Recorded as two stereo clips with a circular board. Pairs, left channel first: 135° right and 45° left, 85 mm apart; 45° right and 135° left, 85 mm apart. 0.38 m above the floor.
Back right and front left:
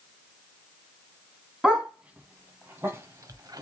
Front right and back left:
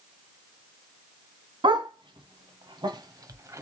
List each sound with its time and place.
1.6 s a dog barking: 125° left, 1.5 m; by 3.6 s 80° left, 0.9 m